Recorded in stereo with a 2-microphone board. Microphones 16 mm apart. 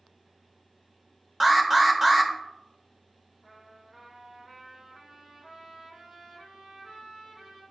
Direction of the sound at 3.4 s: 50° right (ahead or behind).